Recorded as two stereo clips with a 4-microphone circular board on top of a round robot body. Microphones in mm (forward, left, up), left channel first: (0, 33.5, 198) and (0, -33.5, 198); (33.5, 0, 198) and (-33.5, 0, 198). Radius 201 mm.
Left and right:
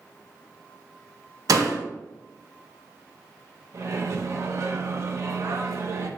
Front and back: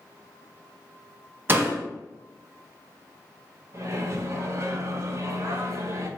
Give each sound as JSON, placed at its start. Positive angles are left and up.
{"t": 1.5, "sound": "a door slam", "azimuth_deg": -120, "distance_m": 0.6}
{"t": 3.7, "sound": "a microwave", "azimuth_deg": -135, "distance_m": 0.6}